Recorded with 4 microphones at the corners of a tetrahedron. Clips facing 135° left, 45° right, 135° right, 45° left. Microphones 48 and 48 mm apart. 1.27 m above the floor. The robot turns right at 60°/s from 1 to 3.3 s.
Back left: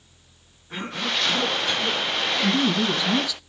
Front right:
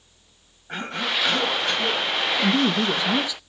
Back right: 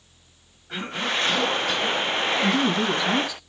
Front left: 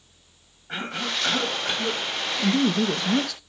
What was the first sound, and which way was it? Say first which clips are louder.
A cough: front right 1 dB, back right 2 dB; 30° right.